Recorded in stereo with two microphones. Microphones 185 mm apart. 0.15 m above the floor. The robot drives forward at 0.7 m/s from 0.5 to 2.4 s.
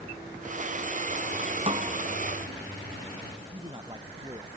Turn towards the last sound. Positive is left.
turn(degrees=-25)  # may be behind; listen again after turning